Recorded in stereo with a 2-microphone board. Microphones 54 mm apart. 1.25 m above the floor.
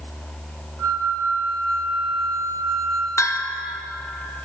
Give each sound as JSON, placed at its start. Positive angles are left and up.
{"t": 0.8, "sound": "a flute", "side_deg": 35, "distance_m": 2.5}
{"t": 3.2, "sound": "a bell", "side_deg": 65, "distance_m": 0.8}